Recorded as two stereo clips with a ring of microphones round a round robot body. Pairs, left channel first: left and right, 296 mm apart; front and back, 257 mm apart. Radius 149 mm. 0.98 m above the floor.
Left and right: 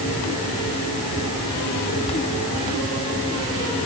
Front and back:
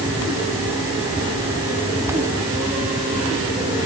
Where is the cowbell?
No cowbell in this recording.